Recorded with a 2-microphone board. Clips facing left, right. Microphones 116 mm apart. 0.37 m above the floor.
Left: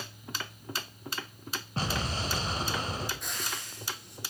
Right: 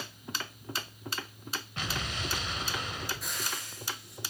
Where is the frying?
Centre (ahead or behind), 3 m.